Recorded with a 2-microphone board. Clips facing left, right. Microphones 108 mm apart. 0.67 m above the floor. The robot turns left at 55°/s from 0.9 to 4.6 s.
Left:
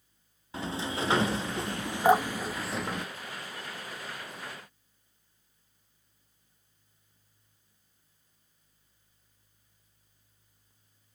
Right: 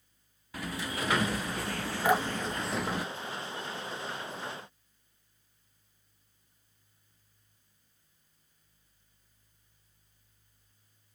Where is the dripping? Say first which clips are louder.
Left 5 dB; 40° left (ahead or behind), 1.3 m; by 3.7 s 50° right (ahead or behind), 1.3 m.